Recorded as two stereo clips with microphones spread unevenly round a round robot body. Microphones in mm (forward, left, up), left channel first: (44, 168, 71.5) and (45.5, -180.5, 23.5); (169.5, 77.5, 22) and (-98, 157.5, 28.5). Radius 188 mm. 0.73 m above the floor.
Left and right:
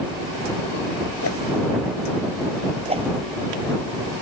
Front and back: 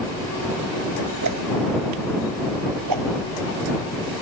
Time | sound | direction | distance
1.2 | a whoosh | 145° left | ?
2.9 | a whoosh | 165° right | ?